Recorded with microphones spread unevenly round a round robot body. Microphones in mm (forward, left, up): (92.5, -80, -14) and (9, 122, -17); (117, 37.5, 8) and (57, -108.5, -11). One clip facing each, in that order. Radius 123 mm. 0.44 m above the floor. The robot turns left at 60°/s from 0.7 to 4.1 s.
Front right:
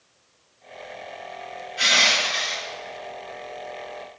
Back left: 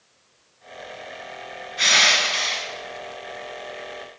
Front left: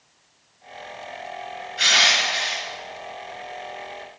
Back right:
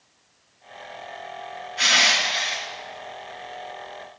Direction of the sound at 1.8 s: 155° right.